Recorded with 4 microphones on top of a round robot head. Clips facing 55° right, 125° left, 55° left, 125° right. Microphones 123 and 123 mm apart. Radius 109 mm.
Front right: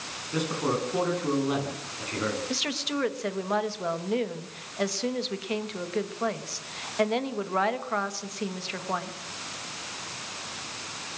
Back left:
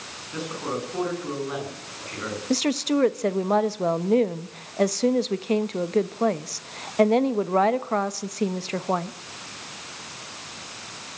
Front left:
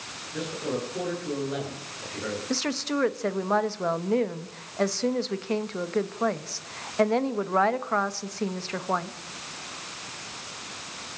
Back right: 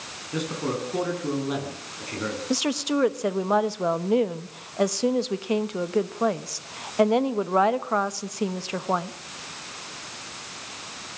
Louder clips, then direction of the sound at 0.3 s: Front right 2 dB, back right 2 dB; 125° right.